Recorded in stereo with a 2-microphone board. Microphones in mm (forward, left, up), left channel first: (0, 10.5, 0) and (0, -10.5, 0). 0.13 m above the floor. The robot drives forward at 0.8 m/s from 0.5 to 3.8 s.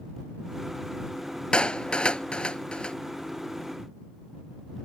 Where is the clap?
55° left (ahead or behind).